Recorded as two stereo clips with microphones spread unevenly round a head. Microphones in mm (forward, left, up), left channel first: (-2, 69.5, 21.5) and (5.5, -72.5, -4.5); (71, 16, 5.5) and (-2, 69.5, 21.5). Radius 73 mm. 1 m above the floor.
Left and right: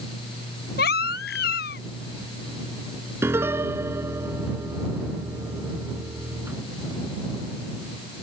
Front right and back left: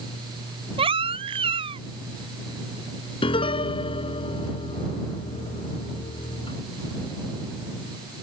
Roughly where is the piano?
Ahead.